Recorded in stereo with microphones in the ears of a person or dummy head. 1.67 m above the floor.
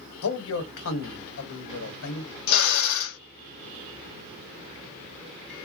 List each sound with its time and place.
0.2 s a man speaking: 75° left (ahead or behind), 1.2 m
2.5 s a drill: 80° left, 1.0 m